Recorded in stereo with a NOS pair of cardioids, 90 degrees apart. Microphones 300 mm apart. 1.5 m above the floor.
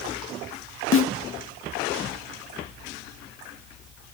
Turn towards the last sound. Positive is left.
turn(degrees=45)